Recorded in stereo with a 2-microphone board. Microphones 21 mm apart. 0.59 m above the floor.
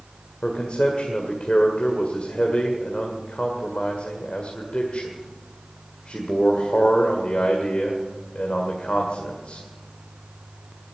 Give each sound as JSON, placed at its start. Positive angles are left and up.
{"t": 0.4, "sound": "a man speaking", "side_deg": 70, "distance_m": 1.8}